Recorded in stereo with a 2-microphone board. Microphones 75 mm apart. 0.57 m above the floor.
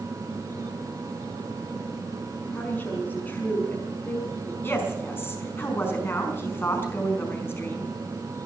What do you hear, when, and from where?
2.5 s a woman speaking: 20° left (ahead or behind), 5.5 m
4.6 s a woman speaking: 30° left (ahead or behind), 5 m